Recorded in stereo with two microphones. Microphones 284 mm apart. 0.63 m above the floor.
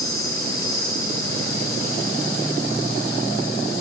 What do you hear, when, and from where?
0.0 s an insect: 50° right (ahead or behind), 9 m